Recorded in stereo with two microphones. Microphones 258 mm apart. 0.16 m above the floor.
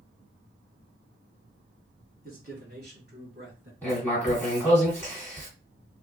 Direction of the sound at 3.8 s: 10° left (ahead or behind).